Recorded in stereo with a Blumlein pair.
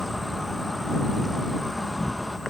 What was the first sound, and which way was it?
An insect, straight ahead.